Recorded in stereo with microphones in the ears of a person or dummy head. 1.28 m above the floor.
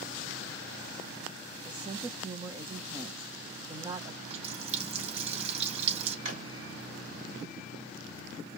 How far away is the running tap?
About 2.5 m.